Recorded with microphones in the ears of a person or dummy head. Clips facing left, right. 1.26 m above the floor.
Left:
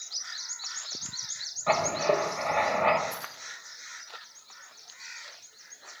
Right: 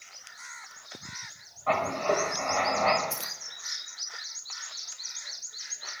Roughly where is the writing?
Left.